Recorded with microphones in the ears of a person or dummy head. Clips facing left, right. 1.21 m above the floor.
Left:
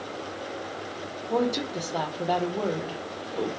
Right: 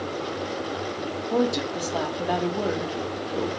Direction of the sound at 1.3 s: Centre (ahead or behind).